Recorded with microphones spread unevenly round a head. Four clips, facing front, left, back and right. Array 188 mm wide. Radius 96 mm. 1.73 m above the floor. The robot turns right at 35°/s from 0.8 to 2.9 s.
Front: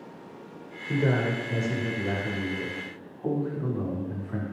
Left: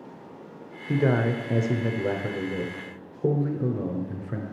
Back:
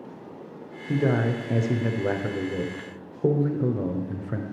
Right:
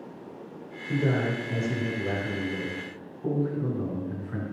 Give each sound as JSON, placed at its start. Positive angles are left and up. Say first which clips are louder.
{"t": 0.9, "sound": "a man speaking", "louder": "left 3 dB, back 2 dB", "azimuth_deg": 75, "distance_m": 0.8}